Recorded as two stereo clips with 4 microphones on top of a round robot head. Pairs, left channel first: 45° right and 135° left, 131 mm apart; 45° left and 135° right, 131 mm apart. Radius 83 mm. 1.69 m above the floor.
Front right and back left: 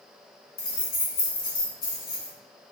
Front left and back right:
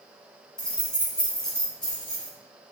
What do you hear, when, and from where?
0.6 s keys jangling: 40° right, 0.9 m